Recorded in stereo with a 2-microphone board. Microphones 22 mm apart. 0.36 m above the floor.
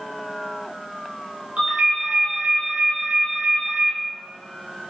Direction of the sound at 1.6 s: 75° right (ahead or behind).